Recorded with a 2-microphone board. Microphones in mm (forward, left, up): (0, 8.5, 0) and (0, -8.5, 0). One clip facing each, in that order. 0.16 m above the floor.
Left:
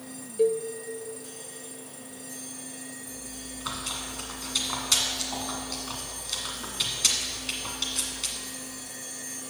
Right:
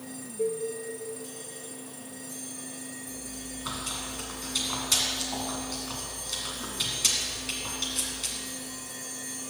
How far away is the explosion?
No explosion in this recording.